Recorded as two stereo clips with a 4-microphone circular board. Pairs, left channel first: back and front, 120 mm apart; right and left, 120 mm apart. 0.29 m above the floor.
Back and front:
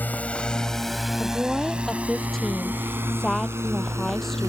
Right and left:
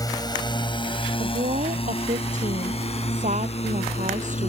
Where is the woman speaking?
90° left.